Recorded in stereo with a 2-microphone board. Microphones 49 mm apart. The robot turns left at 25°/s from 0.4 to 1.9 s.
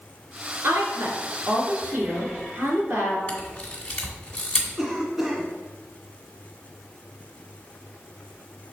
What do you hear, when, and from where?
0.6 s a woman speaking: 75° right, 2 m; by 3.2 s 105° right, 2 m
3.3 s a camera shutter: 15° left (ahead or behind), 1.8 m
4.8 s a cough: 10° right (ahead or behind), 1.4 m